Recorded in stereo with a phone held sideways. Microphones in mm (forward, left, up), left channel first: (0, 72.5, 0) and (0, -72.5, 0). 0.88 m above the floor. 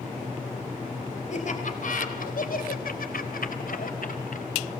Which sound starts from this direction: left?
Laughter, at 1.3 s.